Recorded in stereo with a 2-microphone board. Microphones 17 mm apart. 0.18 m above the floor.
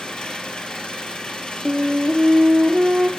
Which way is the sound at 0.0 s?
60° left (ahead or behind).